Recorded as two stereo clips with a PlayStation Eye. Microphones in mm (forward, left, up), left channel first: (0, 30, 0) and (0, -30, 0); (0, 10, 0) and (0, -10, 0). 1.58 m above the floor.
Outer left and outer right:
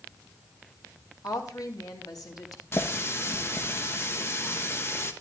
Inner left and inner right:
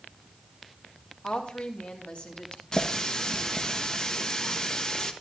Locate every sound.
1.2 s a woman speaking: 80° left, 2 m
2.7 s a running tap: 40° left (ahead or behind), 1.2 m